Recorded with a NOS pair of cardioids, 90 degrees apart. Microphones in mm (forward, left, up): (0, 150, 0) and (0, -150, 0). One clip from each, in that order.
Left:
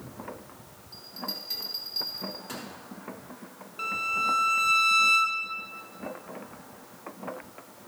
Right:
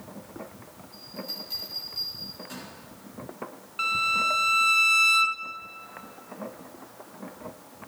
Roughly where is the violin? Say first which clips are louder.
Right 4 dB; ahead right.